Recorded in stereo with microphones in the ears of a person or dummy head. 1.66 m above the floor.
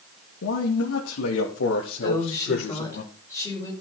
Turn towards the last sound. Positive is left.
turn(degrees=10)  # may be behind; listen again after turning